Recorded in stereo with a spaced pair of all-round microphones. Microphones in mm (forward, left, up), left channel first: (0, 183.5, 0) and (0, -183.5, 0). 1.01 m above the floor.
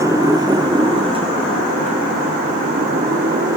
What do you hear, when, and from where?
0.0 s a motorcycle: 10° right (ahead or behind); by 3.6 s 25° right (ahead or behind)